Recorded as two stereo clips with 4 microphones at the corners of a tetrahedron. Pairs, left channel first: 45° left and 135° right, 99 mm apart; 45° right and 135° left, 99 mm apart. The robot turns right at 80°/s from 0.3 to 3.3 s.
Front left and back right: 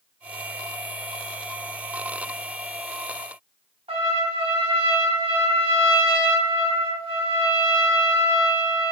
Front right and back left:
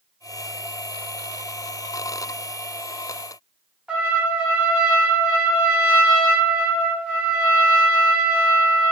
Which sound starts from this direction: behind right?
A trumpet, at 3.9 s.